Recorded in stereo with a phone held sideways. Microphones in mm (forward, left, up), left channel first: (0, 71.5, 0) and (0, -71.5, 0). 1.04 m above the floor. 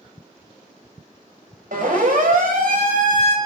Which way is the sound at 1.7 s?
75° right (ahead or behind).